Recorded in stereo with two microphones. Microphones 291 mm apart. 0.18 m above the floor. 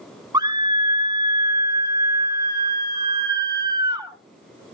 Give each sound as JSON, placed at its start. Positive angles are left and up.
{"t": 0.3, "sound": "a scream", "side_deg": -15, "distance_m": 1.9}